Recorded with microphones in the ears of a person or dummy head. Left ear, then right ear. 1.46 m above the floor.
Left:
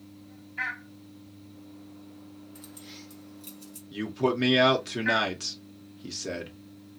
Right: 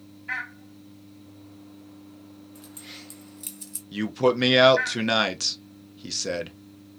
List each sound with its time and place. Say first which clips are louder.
2.5 s keys jangling: right 5 dB; 5° left (ahead or behind), 0.6 m; by 3.8 s 55° right (ahead or behind), 1.0 m
3.9 s a man speaking: right 5 dB; 25° right (ahead or behind), 0.7 m